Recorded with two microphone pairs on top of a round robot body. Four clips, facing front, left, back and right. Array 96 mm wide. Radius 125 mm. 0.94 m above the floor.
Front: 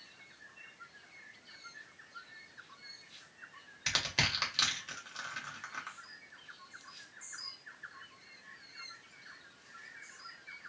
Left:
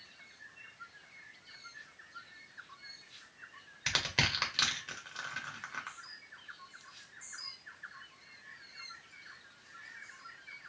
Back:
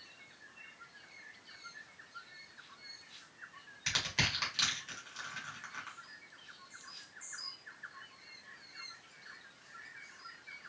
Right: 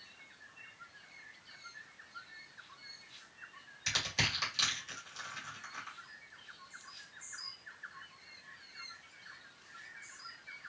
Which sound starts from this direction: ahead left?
Crushing, at 3.9 s.